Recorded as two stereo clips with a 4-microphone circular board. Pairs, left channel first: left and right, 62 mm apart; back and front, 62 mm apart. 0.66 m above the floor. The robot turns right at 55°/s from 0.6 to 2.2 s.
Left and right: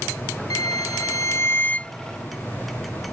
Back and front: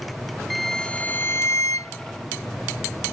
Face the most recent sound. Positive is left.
turn(degrees=180)